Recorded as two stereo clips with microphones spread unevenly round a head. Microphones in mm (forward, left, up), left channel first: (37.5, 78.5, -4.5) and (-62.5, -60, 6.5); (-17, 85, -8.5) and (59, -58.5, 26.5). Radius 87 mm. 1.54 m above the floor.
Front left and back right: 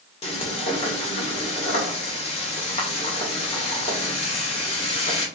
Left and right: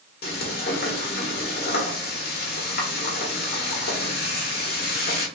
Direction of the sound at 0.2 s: 100° left.